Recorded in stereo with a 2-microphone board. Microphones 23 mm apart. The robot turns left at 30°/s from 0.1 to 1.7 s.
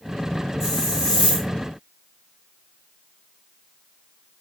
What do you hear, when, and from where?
0.6 s a hiss: 20° right (ahead or behind), 3.5 m; by 1.5 s 45° right (ahead or behind), 3.5 m